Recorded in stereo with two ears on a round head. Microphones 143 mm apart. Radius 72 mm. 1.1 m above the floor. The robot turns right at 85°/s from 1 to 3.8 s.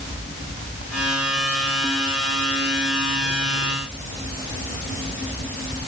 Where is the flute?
I don't hear a flute.